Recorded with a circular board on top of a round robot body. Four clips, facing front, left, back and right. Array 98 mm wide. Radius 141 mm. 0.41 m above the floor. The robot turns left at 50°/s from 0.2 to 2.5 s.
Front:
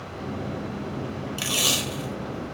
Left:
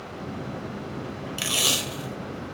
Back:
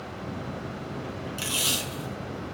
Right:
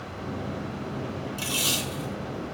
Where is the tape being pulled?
65° left, 0.8 m; by 2.5 s 10° left, 0.8 m.